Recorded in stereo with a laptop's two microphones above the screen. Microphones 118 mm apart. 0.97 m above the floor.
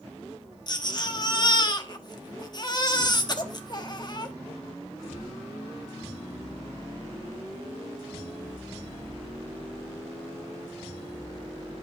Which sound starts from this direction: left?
A baby crying, at 0.7 s.